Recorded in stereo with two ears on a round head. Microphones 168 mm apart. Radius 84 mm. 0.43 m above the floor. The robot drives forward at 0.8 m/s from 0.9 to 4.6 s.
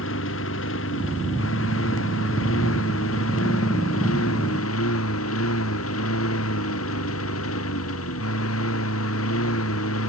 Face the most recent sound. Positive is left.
turn(degrees=85)